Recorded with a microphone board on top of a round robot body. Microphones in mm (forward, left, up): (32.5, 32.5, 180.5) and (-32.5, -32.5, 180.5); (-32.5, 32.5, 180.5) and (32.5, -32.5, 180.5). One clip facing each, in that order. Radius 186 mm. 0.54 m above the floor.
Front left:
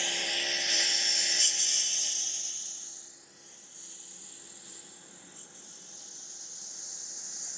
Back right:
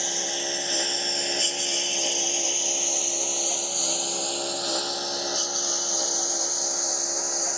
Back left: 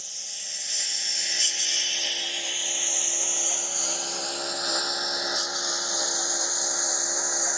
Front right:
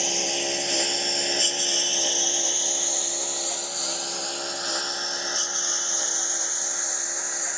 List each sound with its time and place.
0.0 s a lawn mower: 65° right; by 7.6 s 155° right